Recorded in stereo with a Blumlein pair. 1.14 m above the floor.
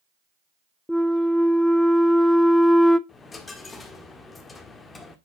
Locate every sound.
0.9 s a flute: 5° left, 0.6 m
3.1 s a dropped coin: 15° left, 1.4 m